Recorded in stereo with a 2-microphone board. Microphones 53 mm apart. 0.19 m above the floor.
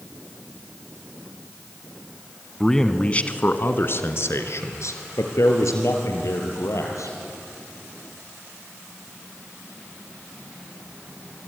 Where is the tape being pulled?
I don't hear tape being pulled.